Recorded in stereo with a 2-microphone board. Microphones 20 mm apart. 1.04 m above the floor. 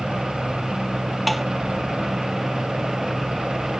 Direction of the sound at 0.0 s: 65° right (ahead or behind).